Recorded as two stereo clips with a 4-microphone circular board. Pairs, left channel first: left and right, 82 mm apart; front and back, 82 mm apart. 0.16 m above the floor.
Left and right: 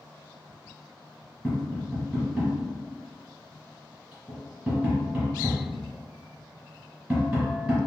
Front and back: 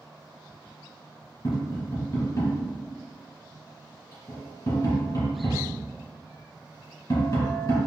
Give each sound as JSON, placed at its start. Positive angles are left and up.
{"t": 1.4, "sound": "tapping", "azimuth_deg": -20, "distance_m": 2.0}